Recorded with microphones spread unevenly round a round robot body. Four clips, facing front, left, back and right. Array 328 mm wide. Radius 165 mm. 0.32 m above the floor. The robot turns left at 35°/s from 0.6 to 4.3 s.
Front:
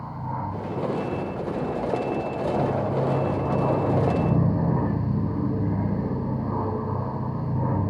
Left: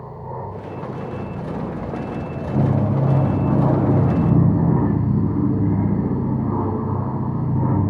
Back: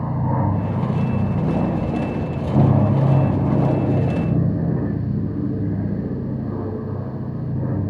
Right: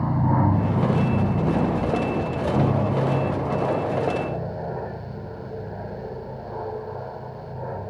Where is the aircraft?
130° right; by 7.9 s 100° left.